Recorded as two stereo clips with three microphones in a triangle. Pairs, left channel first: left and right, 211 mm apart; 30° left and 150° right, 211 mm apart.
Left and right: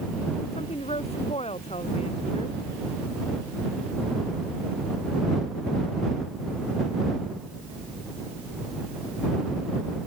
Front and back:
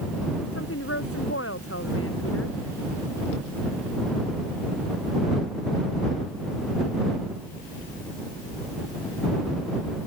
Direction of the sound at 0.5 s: 30° left.